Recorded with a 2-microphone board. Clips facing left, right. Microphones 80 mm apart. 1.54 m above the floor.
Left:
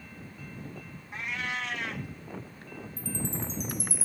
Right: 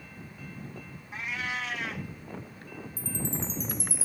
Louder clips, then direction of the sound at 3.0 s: Even; 55° left (ahead or behind).